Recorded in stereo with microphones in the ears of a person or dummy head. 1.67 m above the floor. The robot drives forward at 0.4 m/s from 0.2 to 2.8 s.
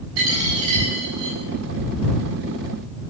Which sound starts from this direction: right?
A dropped coin, at 0.2 s.